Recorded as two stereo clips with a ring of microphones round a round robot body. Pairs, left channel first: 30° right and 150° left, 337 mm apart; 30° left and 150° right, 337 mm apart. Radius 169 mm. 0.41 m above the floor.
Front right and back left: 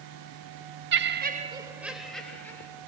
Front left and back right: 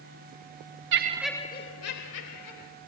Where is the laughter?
175° right, 0.9 m; by 2.7 s 55° left, 2 m.